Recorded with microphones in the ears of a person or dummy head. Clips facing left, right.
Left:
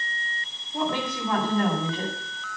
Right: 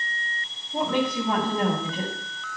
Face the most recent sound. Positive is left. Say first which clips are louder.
# right 3 dB
turn(degrees=-85)